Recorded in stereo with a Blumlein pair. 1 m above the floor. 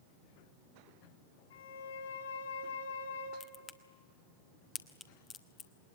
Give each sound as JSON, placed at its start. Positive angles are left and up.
{"t": 1.5, "sound": "a violin", "azimuth_deg": 65, "distance_m": 7.0}
{"t": 3.4, "sound": "a crack", "azimuth_deg": 20, "distance_m": 1.3}